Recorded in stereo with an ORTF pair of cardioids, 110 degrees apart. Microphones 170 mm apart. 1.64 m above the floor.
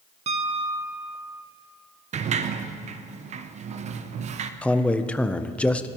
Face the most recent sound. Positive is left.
turn(degrees=5)